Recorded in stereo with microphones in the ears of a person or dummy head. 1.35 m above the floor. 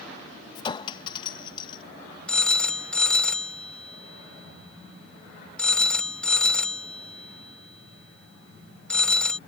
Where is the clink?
30° left (ahead or behind).